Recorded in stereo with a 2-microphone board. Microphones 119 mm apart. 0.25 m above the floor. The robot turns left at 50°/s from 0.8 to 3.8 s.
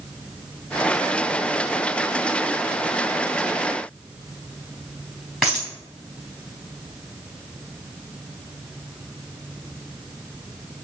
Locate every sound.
5.4 s a dropped coin: 5° right (ahead or behind), 3.5 m